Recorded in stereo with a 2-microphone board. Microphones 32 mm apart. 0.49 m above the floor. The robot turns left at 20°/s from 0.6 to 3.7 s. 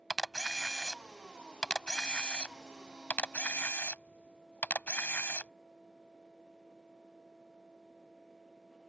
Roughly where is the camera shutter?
Centre.